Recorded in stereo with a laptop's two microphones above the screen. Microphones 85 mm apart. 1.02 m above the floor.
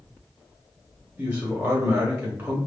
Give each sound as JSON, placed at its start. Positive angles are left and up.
{"t": 1.2, "sound": "a man speaking", "side_deg": -15, "distance_m": 2.0}